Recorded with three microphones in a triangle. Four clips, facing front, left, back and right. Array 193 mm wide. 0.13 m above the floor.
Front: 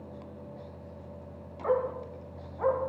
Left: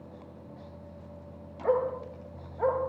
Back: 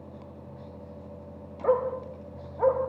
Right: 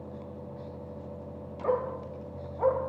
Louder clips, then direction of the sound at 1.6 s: Left 2 dB, back 3 dB; 170° right.